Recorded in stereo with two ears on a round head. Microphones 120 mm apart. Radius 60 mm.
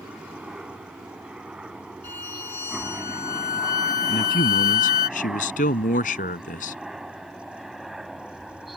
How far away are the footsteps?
No footsteps in this recording.